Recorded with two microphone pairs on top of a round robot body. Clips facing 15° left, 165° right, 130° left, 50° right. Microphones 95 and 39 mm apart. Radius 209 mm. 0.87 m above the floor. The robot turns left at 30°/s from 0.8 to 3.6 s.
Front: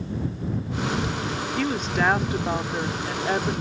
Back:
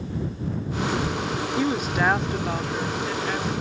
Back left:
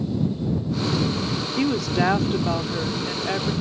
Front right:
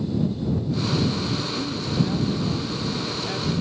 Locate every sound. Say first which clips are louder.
1.6 s a woman speaking: back 1 dB, back left 8 dB; 120° left; by 3.5 s 65° left